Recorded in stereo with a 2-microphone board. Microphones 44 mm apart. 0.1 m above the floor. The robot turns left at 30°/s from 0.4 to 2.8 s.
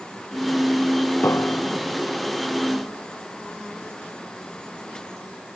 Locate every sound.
1.2 s a piano: 65° left (ahead or behind); by 2.0 s 40° left (ahead or behind)